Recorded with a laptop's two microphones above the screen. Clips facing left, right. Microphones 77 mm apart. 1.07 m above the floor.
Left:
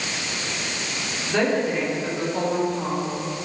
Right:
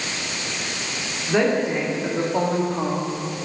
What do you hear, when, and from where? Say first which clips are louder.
1.3 s a woman speaking: right 2 dB; 15° right (ahead or behind), 2.5 m; by 3.5 s 80° right, 2.0 m